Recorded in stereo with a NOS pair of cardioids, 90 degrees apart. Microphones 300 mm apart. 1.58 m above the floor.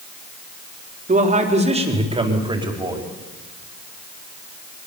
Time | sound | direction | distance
1.1 | a man speaking | 25° right | 4.5 m